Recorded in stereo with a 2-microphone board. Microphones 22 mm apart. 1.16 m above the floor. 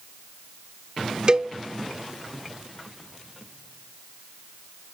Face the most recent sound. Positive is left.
turn(degrees=-35)  # may be behind; listen again after turning